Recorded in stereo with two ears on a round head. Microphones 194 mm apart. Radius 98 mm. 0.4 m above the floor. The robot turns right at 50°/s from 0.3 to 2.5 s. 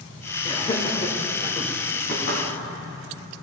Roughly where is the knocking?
Left.